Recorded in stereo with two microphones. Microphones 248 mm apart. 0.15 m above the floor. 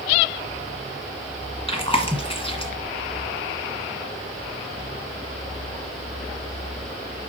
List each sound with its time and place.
1.7 s chewing: 25° left (ahead or behind), 1.5 m